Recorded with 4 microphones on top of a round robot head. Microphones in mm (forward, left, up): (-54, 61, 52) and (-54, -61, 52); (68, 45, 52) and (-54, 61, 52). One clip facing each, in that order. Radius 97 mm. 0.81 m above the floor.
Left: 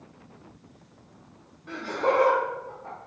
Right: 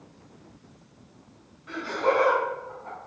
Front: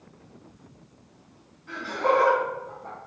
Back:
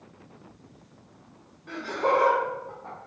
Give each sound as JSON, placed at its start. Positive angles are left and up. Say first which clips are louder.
{"t": 1.7, "sound": "laughter", "louder": "even, front 1 dB", "azimuth_deg": 140, "distance_m": 1.3}